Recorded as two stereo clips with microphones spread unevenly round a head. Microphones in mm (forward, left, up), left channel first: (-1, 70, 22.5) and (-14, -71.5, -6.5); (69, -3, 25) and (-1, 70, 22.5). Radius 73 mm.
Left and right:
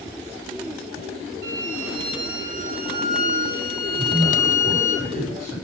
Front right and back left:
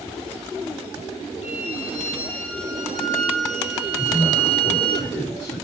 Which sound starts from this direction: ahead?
A man speaking, at 4.0 s.